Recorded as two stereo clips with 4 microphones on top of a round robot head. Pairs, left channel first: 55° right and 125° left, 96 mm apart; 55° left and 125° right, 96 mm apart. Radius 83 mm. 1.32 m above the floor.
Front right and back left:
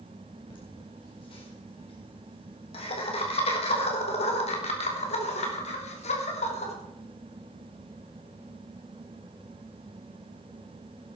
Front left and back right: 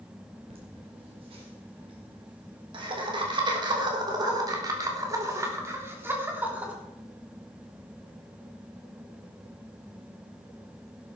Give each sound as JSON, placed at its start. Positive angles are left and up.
{"t": 0.5, "sound": "laughter", "azimuth_deg": -95, "distance_m": 5.0}